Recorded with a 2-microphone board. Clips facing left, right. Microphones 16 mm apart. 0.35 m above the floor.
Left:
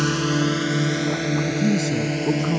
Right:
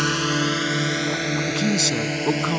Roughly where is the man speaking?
Right.